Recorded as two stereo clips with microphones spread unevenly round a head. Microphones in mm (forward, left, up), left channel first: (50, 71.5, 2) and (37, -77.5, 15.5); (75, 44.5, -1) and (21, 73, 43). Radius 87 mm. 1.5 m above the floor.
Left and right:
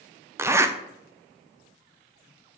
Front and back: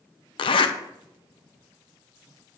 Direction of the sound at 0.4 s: 25° right.